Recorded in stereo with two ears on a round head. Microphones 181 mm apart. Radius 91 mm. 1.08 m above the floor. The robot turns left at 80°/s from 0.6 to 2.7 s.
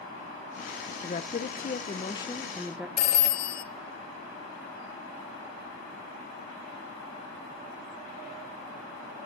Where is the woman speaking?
125° left, 0.6 m; by 2.9 s 10° right, 0.6 m.